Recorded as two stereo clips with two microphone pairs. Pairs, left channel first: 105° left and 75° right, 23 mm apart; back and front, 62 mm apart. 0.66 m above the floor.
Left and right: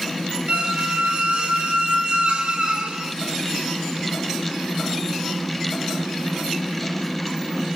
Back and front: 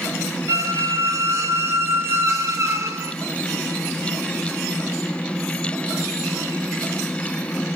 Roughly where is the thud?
I don't hear a thud.